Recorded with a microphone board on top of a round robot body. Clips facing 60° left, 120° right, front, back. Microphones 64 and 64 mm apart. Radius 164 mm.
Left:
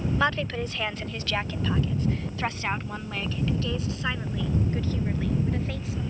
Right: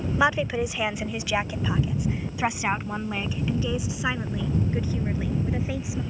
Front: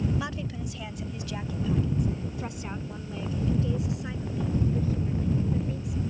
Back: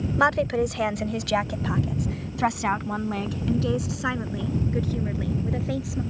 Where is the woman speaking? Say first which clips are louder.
Right 5 dB, back 13 dB; 165° left.